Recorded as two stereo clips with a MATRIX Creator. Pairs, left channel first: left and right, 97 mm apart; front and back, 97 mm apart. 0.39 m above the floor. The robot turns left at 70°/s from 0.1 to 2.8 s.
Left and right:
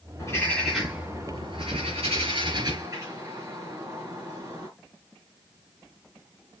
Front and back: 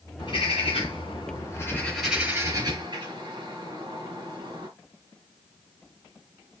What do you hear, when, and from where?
0.2 s a bird: 40° left, 5.5 m; by 4.7 s 145° right, 5.5 m